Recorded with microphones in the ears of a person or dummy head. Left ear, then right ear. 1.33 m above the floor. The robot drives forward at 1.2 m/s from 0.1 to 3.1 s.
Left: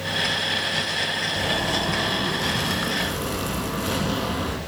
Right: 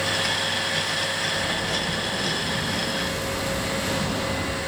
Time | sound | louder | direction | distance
1.4 | a zipper | left 2 dB | 60° left (ahead or behind) | 1.2 m